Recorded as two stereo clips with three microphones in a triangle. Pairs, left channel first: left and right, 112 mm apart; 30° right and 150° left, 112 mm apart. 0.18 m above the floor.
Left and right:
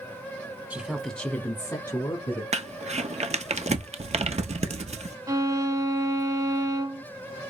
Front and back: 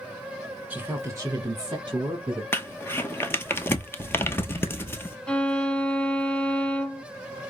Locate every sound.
0.7 s a woman speaking: 150° right, 1.1 m; by 2.4 s 120° left, 1.7 m
2.5 s crumpling: 100° right, 0.7 m
5.3 s a violin: 105° right, 0.7 m